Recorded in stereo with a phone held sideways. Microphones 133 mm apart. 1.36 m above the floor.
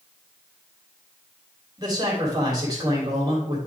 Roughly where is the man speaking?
Right.